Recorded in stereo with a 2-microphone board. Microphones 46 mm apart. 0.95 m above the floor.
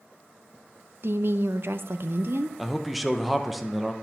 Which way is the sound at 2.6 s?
Centre (ahead or behind).